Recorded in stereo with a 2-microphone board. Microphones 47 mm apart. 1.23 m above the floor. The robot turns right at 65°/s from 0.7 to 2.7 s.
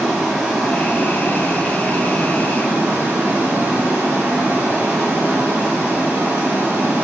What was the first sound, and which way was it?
Running water, 175° right.